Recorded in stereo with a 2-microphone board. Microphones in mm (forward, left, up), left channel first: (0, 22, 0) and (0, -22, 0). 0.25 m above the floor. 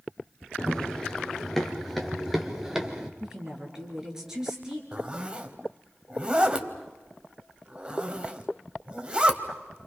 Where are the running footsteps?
15° left (ahead or behind), 3 m; by 3.1 s 15° right (ahead or behind), 2.5 m.